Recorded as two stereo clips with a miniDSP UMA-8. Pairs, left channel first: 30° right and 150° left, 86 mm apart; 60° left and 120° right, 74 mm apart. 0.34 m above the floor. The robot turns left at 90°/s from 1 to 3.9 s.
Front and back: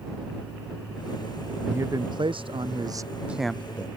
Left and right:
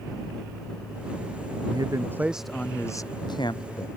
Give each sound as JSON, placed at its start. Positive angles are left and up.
{"t": 1.6, "sound": "a man speaking", "azimuth_deg": -140}